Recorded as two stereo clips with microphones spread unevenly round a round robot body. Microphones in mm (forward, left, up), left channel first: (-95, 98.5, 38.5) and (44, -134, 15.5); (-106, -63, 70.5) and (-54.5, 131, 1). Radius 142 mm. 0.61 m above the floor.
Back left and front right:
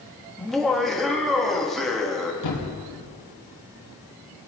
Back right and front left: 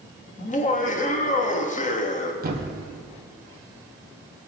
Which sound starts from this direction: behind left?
A thud, at 2.4 s.